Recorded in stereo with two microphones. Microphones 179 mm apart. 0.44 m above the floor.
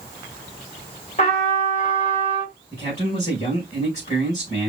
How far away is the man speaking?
About 3.5 m.